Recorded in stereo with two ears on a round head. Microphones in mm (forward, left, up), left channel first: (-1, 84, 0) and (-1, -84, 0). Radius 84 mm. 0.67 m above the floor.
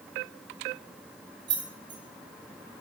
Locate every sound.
1.5 s keys jangling: 25° right (ahead or behind), 1.0 m